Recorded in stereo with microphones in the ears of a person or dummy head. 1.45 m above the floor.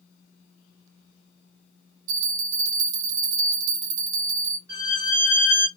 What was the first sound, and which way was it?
A bell, 45° right (ahead or behind).